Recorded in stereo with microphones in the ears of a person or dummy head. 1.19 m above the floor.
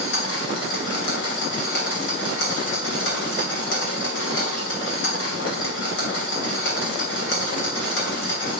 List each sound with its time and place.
0.0 s a machine running: 70° left (ahead or behind), 2.5 m